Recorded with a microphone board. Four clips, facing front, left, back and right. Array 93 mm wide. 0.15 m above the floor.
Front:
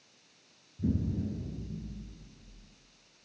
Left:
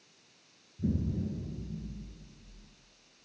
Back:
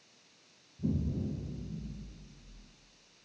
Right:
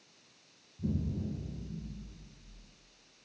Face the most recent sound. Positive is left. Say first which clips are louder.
# left 3 dB, front 2 dB
turn(degrees=25)